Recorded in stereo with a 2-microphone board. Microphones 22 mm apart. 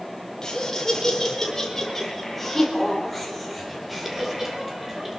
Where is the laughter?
25° left (ahead or behind), 4 m; by 5.2 s 15° right (ahead or behind), 4.5 m.